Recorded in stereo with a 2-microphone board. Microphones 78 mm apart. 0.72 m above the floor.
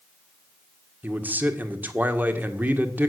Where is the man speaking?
25° right (ahead or behind), 1.7 m.